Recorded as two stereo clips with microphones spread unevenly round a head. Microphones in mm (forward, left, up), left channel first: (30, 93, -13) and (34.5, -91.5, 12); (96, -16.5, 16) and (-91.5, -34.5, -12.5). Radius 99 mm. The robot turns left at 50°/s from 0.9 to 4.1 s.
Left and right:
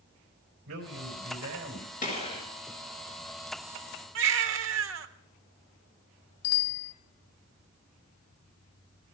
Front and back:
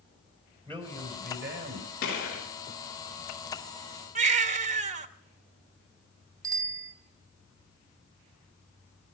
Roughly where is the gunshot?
Ahead left.